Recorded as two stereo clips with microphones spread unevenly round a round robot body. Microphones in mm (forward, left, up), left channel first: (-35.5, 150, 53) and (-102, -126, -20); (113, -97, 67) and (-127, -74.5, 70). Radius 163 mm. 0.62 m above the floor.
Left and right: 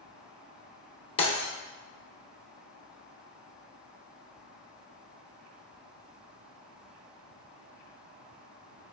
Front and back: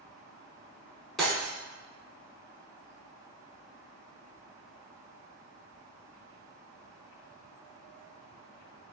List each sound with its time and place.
1.2 s breaking glass: 85° left, 0.5 m